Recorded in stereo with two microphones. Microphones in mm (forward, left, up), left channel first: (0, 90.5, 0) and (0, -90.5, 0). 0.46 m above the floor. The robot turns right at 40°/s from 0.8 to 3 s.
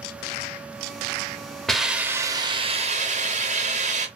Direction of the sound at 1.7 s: Straight behind.